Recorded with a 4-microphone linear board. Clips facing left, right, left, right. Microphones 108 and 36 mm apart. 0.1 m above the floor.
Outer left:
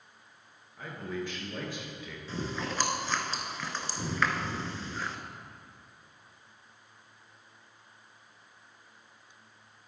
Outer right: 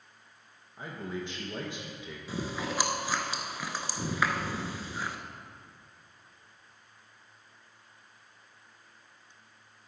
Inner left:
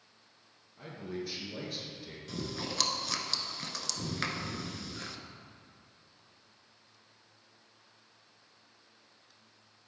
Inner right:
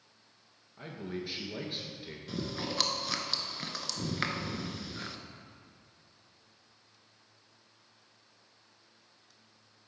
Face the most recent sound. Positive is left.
turn(degrees=-10)  # may be behind; listen again after turning